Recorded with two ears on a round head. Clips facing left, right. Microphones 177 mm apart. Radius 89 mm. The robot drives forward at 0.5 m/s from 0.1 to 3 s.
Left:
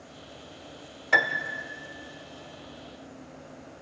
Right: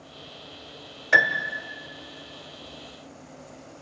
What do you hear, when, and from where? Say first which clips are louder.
1.1 s a piano: right 2 dB; 5° right (ahead or behind), 1.1 m